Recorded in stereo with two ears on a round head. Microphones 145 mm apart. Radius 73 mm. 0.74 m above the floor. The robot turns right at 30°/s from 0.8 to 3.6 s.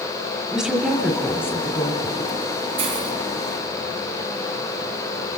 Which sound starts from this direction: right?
A hiss, at 2.8 s.